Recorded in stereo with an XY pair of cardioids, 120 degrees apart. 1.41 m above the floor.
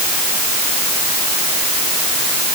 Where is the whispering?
No whispering in this recording.